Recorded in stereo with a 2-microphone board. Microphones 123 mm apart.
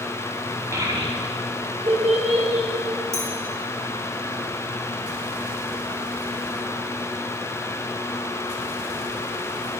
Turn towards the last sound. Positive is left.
turn(degrees=-25)  # may be behind; listen again after turning